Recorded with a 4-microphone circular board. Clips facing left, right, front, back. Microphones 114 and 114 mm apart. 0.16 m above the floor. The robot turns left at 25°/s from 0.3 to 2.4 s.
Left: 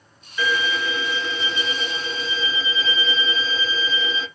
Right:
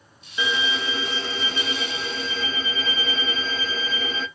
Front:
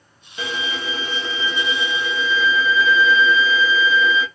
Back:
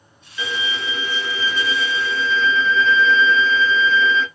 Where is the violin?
30° right, 0.8 m; by 4.3 s 80° right, 0.8 m.